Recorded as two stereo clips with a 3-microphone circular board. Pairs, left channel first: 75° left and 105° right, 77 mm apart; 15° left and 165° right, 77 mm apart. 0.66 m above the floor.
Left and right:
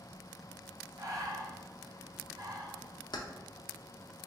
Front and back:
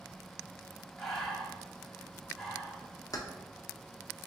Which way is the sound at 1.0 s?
70° right.